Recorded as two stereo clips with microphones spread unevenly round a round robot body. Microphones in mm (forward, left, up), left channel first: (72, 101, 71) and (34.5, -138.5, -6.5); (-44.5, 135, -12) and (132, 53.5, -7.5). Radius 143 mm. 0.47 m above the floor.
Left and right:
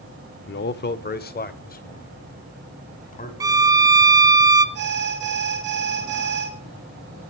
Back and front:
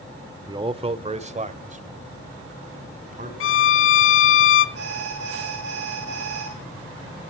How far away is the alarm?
About 5.5 m.